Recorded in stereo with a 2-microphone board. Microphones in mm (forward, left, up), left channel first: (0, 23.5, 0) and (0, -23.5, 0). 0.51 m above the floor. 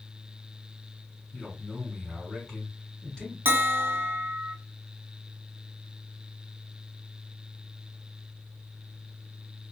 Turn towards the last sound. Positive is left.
turn(degrees=-55)  # may be behind; listen again after turning